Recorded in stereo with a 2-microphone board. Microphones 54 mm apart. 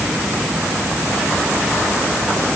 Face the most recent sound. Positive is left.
No sound to turn to.